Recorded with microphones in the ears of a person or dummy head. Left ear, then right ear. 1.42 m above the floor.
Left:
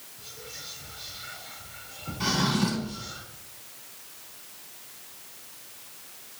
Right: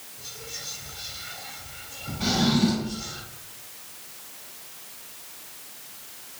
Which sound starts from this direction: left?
A drawer, at 2.2 s.